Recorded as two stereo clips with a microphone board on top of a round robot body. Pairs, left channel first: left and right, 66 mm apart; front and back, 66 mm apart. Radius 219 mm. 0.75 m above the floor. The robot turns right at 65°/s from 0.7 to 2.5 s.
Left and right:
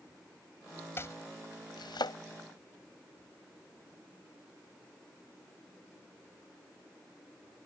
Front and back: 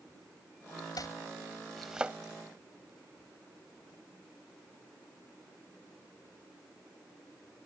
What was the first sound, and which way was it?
Chopping, 35° left.